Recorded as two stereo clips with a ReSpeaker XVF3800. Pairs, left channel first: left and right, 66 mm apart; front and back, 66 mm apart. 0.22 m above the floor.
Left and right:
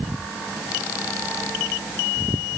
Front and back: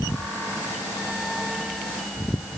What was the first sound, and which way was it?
Only background noise.